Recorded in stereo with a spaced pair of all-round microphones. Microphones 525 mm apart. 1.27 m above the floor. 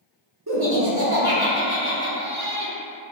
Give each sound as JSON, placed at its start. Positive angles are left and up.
{"t": 0.5, "sound": "laughter", "side_deg": -45, "distance_m": 1.2}